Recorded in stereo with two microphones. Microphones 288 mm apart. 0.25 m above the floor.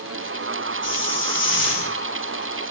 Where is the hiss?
40° left (ahead or behind), 8.5 m.